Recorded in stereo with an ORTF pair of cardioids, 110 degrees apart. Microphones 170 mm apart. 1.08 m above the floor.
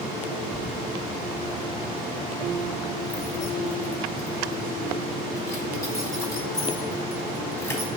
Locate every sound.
0.5 s keys jangling: 55° left, 0.6 m; by 7.9 s 15° left, 4.5 m